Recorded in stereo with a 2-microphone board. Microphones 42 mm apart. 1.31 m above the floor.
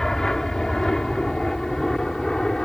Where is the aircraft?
10° left (ahead or behind); by 2.7 s 15° left (ahead or behind).